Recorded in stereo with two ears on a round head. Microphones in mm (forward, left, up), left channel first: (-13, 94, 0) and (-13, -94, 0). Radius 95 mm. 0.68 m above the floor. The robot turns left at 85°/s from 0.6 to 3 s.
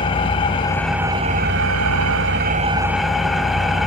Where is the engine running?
25° left, 1.2 m; by 3.9 s straight behind, 1.2 m.